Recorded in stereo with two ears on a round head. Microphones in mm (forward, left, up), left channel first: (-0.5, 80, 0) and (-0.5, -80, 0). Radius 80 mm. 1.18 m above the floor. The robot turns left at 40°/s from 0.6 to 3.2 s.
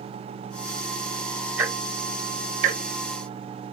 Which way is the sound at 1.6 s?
10° right (ahead or behind).